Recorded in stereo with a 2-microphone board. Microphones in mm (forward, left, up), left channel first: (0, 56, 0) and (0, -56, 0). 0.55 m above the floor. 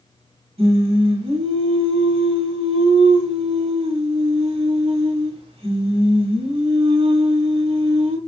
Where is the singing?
60° right (ahead or behind), 1.0 m.